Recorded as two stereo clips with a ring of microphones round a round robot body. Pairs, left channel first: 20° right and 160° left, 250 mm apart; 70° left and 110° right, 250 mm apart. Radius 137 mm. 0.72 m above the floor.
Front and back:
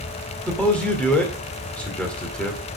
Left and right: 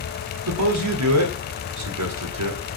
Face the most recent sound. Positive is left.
turn(degrees=-110)